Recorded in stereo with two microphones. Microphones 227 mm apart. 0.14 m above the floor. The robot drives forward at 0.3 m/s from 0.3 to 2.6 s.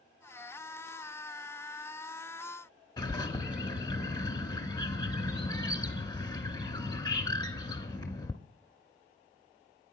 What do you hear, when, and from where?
3.0 s a bird: 20° left (ahead or behind), 0.8 m